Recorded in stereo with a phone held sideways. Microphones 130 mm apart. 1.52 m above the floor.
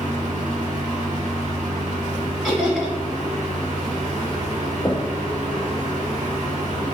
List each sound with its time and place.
0.0 s a fan: 75° right (ahead or behind), 1.6 m
2.4 s laughter: 5° right (ahead or behind), 1.8 m
4.8 s knocking: 15° left (ahead or behind), 0.6 m